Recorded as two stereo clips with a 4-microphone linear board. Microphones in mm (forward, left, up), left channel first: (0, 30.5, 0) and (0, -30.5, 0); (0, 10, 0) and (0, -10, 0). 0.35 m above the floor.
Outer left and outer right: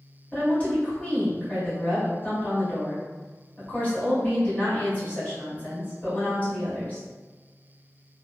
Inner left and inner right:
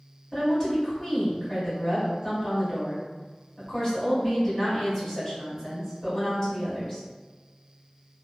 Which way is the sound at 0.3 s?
25° left (ahead or behind).